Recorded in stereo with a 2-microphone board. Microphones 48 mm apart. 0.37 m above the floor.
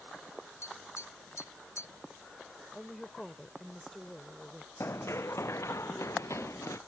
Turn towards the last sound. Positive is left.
turn(degrees=85)